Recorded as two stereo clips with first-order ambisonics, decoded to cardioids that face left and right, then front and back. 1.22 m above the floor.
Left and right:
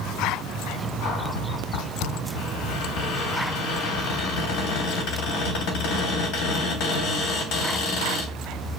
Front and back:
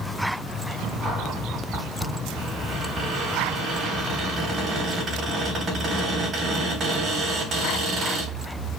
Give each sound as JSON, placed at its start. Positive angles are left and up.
{"t": 1.0, "sound": "a cupboard door", "azimuth_deg": 110, "distance_m": 3.0}